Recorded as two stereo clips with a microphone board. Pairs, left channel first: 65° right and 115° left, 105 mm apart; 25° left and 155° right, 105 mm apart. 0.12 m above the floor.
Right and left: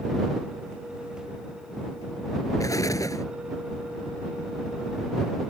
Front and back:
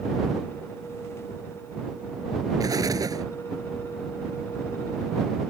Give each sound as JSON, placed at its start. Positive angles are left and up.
{"t": 2.6, "sound": "an explosion", "azimuth_deg": -115}